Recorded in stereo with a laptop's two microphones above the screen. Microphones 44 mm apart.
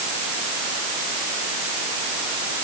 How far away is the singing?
No singing in this recording.